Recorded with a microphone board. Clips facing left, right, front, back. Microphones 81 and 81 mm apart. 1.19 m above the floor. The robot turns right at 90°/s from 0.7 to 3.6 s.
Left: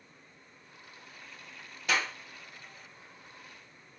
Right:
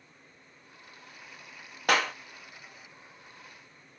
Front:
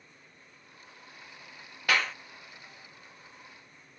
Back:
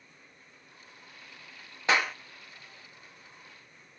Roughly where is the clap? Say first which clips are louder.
Right 5 dB, back 2 dB; behind right.